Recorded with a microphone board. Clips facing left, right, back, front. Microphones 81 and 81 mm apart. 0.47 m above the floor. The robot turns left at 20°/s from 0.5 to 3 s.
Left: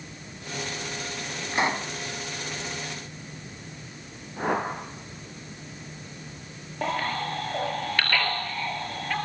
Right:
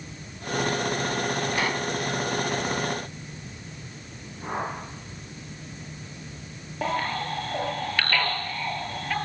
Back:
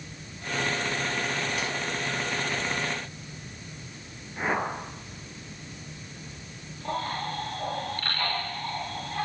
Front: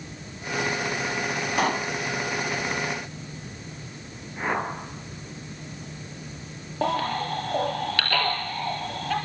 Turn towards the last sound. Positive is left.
turn(degrees=0)